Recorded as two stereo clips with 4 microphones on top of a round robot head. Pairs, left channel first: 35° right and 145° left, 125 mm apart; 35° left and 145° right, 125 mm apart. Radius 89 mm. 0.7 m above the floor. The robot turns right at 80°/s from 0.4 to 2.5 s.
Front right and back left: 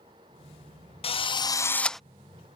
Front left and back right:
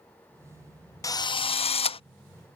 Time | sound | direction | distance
1.0 | a drill | 20° right | ?